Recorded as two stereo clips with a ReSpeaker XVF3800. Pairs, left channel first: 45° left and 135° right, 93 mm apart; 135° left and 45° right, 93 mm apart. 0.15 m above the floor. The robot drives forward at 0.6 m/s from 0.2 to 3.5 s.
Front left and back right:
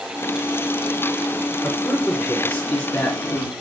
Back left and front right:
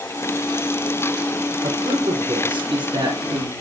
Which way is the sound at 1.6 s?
20° right.